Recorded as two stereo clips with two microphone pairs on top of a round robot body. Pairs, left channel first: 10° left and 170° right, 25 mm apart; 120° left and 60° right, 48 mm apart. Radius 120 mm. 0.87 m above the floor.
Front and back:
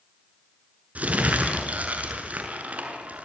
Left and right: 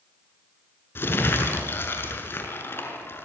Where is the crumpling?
165° left, 6.5 m.